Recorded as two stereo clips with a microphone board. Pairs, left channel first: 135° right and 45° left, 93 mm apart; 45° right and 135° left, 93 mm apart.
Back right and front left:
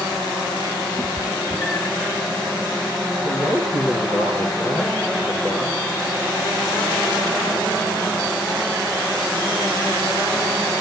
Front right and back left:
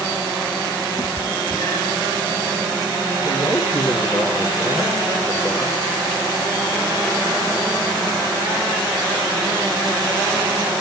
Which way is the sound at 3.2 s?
85° right.